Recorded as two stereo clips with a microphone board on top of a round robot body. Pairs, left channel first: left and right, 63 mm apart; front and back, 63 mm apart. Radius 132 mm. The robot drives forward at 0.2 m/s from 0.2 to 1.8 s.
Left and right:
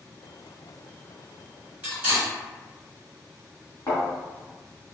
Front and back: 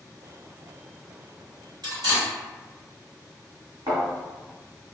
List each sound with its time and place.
1.8 s cutlery clinking: 160° right, 1.7 m
3.9 s a thud: 145° left, 1.2 m